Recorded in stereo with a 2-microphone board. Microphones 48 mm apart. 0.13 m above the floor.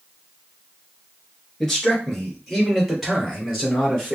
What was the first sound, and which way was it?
A man speaking, 5° left (ahead or behind).